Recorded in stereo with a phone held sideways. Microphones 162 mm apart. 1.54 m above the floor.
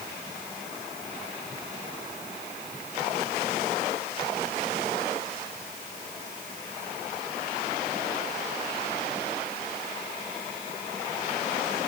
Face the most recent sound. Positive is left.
No sound to turn to.